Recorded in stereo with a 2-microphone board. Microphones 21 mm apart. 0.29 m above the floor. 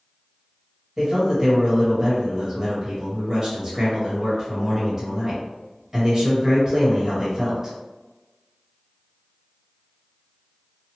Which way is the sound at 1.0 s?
20° right (ahead or behind).